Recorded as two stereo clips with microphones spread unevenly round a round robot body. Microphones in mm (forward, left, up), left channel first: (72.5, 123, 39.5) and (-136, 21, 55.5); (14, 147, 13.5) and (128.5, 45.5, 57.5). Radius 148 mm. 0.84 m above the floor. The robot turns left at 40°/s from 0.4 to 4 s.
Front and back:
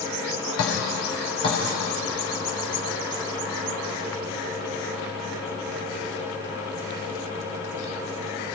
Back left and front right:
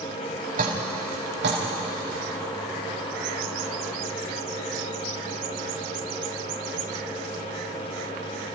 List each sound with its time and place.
0.6 s dripping: 10° right, 4 m; by 1.6 s 50° right, 4 m